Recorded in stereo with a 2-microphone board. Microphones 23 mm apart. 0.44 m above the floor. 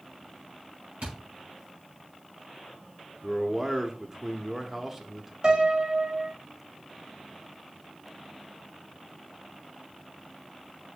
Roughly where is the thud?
Right.